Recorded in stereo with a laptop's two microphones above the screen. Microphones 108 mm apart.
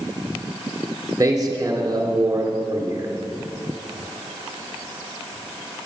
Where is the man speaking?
35° right (ahead or behind), 3 m.